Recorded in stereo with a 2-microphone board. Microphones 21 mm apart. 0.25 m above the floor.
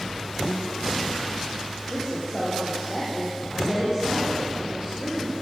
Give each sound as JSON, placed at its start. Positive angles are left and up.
{"t": 1.9, "sound": "a woman speaking", "side_deg": -20, "distance_m": 8.0}